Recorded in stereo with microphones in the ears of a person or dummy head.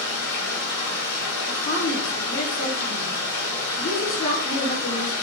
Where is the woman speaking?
75° left (ahead or behind), 0.8 m.